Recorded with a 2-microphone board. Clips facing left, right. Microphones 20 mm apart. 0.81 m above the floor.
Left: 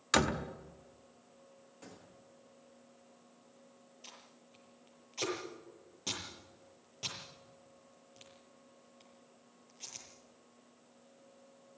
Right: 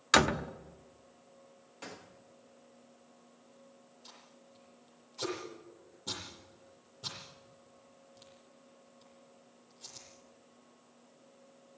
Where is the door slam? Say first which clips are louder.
Right 4 dB; 25° right (ahead or behind), 0.9 m.